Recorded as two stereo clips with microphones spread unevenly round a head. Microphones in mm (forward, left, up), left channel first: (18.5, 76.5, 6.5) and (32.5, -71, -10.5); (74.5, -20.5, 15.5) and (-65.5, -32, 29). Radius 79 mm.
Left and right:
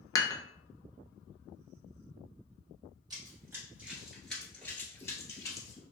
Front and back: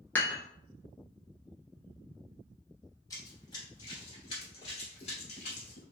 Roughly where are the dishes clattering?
Left.